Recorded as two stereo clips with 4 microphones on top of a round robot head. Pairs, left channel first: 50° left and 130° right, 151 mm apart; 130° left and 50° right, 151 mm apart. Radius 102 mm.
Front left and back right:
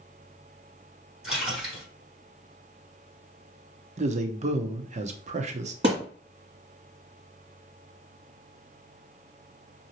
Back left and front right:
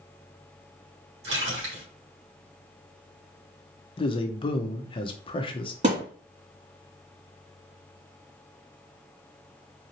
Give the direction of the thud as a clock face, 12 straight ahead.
3 o'clock.